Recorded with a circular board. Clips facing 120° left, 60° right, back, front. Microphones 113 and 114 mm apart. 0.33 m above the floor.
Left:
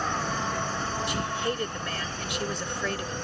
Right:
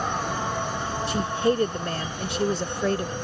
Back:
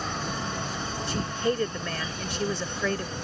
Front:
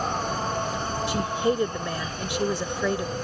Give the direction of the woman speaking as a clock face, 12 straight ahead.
2 o'clock.